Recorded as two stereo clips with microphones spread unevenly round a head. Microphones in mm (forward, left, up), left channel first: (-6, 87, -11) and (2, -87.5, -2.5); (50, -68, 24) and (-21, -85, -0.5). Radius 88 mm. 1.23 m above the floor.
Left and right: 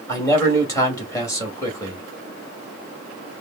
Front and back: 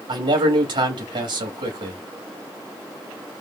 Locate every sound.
0.1 s a man speaking: 165° left, 1.9 m